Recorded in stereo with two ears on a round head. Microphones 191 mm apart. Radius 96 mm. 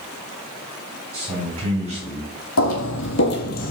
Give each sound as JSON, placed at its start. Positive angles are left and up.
{"t": 1.1, "sound": "a man speaking", "side_deg": -20, "distance_m": 2.0}
{"t": 2.6, "sound": "footsteps", "side_deg": 70, "distance_m": 1.1}